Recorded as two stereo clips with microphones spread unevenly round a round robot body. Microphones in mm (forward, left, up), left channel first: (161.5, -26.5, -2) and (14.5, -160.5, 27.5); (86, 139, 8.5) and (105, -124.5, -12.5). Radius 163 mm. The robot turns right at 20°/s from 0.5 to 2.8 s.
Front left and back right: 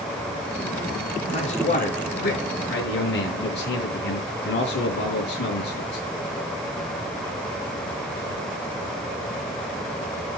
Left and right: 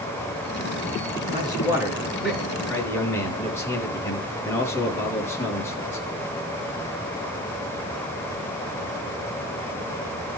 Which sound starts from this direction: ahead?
A man speaking, at 1.3 s.